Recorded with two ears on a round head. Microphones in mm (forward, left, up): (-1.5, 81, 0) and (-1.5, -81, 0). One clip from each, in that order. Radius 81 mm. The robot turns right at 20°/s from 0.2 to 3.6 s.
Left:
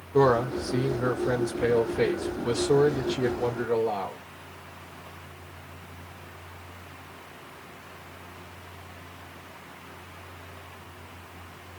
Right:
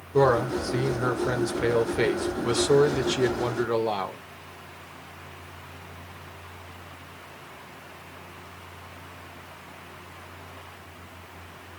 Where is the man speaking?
175° right, 0.9 m; by 4.2 s 105° right, 0.9 m.